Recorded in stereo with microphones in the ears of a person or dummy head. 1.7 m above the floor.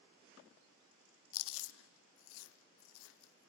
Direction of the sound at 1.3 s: 75° left (ahead or behind).